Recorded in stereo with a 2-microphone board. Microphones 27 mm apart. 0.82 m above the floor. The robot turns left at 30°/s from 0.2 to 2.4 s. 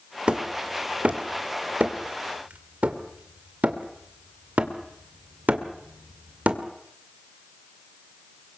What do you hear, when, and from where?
0.3 s hammering: 40° right (ahead or behind), 2 m; by 6.6 s 75° right (ahead or behind), 2 m